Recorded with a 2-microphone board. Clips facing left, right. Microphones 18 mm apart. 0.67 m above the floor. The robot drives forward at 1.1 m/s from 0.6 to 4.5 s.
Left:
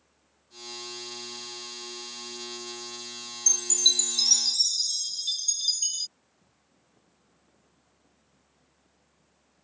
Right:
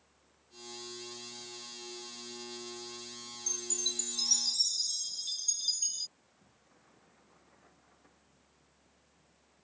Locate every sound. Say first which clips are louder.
3.5 s a chime: left 13 dB; 65° left (ahead or behind); by 6.1 s 30° left (ahead or behind)
6.2 s a sliding door: right 1 dB; 70° right (ahead or behind)